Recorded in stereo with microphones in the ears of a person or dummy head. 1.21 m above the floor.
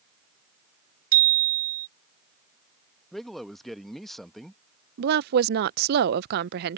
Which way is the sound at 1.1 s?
45° right (ahead or behind).